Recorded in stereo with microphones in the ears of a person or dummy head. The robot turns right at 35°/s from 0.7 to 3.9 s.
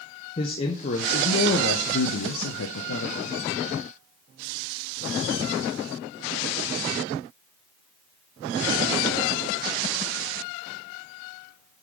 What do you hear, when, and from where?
0.4 s a man speaking: 35° left, 0.8 m; by 3.4 s 125° left, 0.8 m